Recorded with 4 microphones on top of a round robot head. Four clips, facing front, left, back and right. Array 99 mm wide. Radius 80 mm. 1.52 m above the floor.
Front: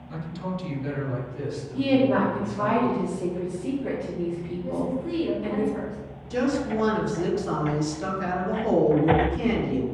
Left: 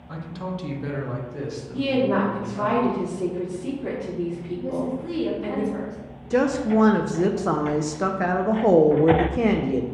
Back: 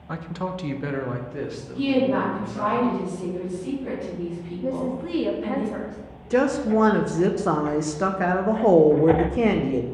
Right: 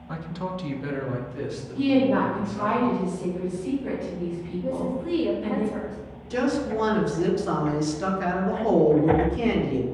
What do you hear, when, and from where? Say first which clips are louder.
0.1 s a man speaking: even, back 3 dB; 170° right, 1.1 m; by 2.7 s 155° left, 3.5 m
1.7 s a woman speaking: right 1 dB, even; 80° left, 4.5 m
4.6 s a woman speaking: even, back 2 dB; 165° left, 2.5 m
6.3 s a woman speaking: left 4 dB, back 5 dB; 140° left, 1.1 m